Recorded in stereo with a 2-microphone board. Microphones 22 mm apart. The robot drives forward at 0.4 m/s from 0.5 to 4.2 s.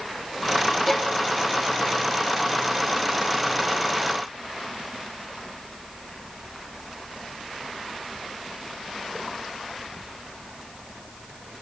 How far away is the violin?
About 0.7 m.